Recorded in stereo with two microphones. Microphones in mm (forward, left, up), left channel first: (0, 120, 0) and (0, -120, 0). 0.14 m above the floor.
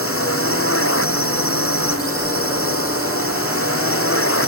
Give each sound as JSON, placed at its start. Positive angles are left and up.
{"t": 0.0, "sound": "a drone", "side_deg": 65}